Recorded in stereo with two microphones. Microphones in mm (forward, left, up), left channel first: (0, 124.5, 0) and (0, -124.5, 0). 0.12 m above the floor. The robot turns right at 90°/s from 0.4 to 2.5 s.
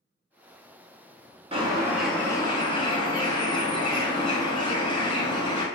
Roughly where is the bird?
Ahead right.